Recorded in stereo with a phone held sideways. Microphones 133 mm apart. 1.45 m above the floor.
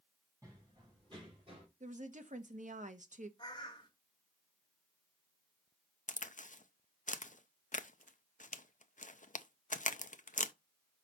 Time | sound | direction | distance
0.4 | running footsteps | 25° right (ahead or behind) | 3.5 m
1.8 | a woman speaking | 70° right (ahead or behind) | 1.0 m
3.4 | a bird | 35° left (ahead or behind) | 1.5 m
6.1 | a crack | 75° left (ahead or behind) | 0.5 m